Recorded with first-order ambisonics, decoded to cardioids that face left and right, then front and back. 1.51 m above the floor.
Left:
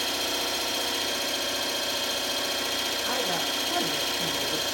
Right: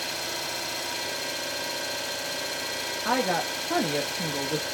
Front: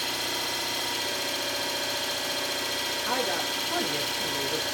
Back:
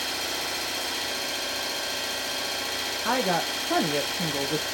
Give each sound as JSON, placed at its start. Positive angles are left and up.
{"t": 0.0, "sound": "an engine running", "azimuth_deg": 120, "distance_m": 3.0}
{"t": 3.0, "sound": "a woman speaking", "azimuth_deg": -155, "distance_m": 0.9}